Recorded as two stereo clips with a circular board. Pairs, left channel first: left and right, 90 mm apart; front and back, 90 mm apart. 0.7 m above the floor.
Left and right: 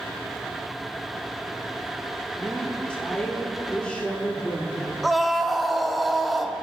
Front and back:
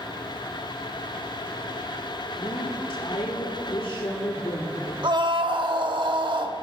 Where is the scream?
Straight behind, 1.3 m.